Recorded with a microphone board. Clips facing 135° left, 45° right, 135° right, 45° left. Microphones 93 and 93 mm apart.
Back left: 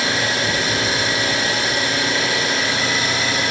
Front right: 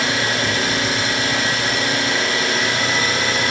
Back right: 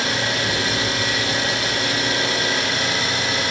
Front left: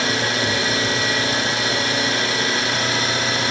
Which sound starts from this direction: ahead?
An engine running, at 0.0 s.